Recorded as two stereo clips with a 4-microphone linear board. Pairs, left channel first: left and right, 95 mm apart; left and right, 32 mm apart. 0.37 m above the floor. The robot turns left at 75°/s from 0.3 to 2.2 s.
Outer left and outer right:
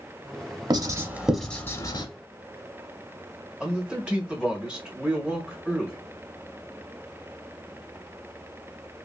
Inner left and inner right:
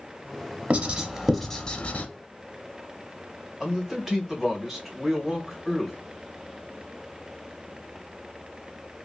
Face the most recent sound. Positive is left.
turn(degrees=-10)  # may be behind; listen again after turning